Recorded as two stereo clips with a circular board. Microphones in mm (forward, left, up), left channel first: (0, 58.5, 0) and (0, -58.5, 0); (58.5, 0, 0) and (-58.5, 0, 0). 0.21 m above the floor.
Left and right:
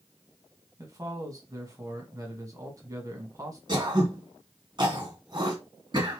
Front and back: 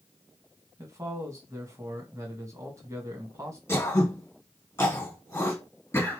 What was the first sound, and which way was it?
A man speaking, 130° right.